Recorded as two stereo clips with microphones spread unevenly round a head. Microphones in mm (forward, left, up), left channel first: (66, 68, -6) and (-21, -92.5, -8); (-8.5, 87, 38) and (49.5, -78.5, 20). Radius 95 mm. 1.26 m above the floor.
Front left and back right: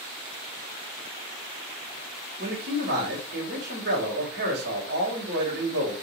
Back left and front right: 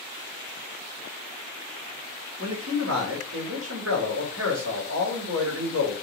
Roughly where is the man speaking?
Right.